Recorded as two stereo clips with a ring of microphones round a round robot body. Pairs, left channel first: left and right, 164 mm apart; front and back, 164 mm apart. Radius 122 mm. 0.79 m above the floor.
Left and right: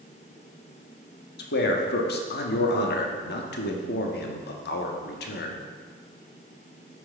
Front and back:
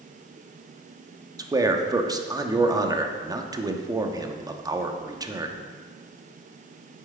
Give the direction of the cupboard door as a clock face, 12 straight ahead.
I don't hear a cupboard door.